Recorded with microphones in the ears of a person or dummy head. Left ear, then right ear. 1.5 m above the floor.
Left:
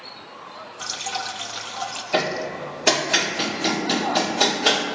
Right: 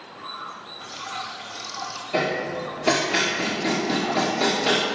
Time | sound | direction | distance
0.8 | dripping | 85° left | 0.9 m
2.1 | hammering | 55° left (ahead or behind) | 1.5 m